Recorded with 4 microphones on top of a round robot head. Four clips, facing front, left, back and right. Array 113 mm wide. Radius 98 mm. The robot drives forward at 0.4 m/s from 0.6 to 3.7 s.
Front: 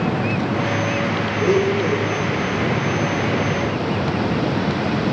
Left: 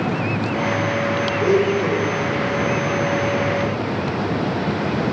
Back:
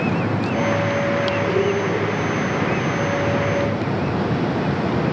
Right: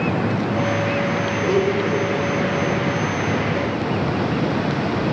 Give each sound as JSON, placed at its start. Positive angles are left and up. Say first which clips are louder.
{"t": 1.4, "sound": "a blender", "louder": "left 2 dB, front 2 dB", "azimuth_deg": 45, "distance_m": 8.0}